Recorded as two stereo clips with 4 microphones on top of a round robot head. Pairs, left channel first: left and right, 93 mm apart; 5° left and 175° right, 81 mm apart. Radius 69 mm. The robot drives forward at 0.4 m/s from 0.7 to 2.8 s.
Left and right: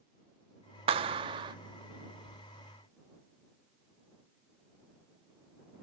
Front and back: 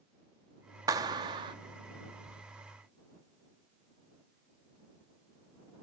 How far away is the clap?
About 0.6 m.